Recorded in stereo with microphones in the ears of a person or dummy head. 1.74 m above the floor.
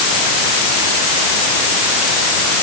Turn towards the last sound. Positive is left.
No sound to turn to.